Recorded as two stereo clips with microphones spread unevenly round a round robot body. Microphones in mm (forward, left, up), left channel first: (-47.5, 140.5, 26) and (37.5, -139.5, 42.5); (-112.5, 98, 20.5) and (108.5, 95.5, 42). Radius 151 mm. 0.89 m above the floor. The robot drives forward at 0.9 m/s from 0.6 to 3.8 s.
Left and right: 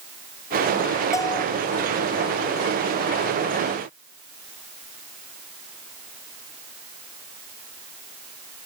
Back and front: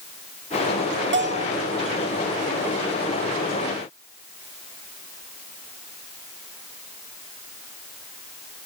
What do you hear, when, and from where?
1.1 s a bell: 30° left, 1.7 m; by 1.6 s 40° left, 1.4 m